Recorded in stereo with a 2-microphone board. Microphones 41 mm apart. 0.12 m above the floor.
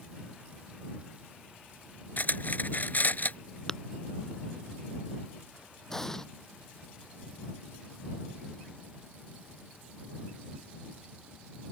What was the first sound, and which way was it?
Cutlery clinking, 50° left (ahead or behind).